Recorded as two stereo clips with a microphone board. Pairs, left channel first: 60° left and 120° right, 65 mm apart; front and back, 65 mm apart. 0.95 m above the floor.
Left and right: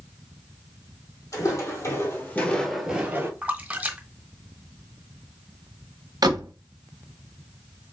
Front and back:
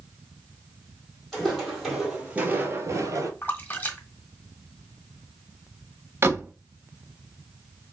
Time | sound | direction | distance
1.3 | footsteps | 85° left | 2.5 m
3.4 | a splash | 55° right | 1.1 m
6.2 | a door slam | 130° right | 0.8 m